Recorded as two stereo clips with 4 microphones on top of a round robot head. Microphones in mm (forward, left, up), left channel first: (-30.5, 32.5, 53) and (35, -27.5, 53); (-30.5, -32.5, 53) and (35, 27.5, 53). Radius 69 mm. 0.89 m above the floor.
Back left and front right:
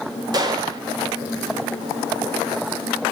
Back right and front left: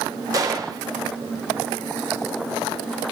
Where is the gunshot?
5° right, 1.8 m.